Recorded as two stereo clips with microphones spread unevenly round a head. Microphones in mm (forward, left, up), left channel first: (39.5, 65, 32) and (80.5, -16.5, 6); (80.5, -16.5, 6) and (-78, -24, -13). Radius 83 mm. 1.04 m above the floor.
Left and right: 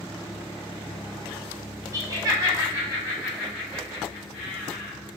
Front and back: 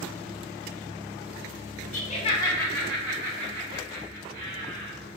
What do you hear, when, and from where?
1.9 s laughter: 30° right, 0.6 m; by 4.9 s 140° right, 1.5 m